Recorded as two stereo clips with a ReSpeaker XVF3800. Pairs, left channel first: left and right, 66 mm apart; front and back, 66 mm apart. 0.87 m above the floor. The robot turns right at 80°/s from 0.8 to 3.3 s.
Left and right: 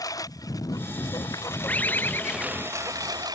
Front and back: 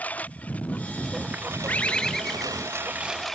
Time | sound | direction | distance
0.0 | a lawn mower | 65° left | ?
1.7 | a bird | 40° left | ?